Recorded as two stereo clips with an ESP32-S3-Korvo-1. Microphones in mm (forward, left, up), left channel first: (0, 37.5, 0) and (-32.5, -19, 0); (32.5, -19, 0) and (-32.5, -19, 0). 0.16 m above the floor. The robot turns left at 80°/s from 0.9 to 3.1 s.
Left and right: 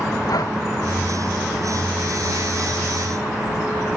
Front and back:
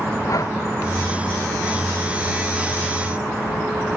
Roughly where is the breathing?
Ahead left.